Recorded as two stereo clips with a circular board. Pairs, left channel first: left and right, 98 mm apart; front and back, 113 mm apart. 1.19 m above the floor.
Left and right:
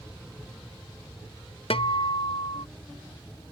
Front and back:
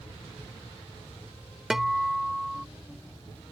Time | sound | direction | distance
1.7 | a guitar | 95° left | ?